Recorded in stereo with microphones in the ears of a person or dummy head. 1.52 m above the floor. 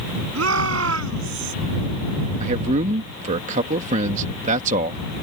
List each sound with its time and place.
0.3 s a shout: 80° right
2.4 s a man speaking: 45° right (ahead or behind)